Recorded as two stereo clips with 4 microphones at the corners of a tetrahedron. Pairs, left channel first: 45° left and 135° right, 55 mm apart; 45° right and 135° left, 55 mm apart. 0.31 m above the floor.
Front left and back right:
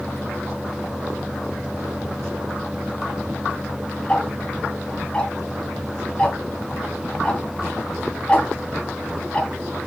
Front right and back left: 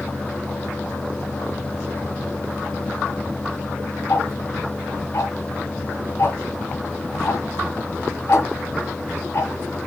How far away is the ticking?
About 2.5 m.